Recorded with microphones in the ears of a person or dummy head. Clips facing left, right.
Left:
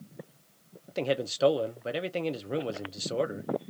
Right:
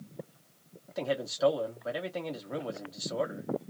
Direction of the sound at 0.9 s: 40° left (ahead or behind).